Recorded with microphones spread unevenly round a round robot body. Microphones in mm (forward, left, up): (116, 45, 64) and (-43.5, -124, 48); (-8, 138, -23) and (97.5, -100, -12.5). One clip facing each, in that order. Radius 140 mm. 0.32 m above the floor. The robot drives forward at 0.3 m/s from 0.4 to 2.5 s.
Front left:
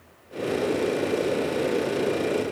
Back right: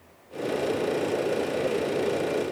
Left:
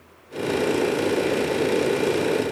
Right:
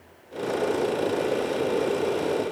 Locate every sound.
Only background noise.